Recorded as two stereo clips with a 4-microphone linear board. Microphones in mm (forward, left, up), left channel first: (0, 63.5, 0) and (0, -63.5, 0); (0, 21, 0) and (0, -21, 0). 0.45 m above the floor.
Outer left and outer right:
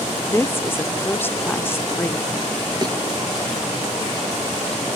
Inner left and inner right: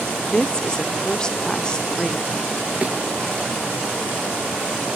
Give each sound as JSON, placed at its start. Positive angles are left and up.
{"t": 0.3, "sound": "a woman speaking", "side_deg": 20, "distance_m": 0.9}
{"t": 2.8, "sound": "a thud", "side_deg": -30, "distance_m": 4.0}